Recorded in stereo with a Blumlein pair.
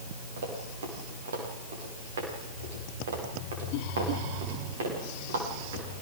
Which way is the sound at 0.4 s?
60° right.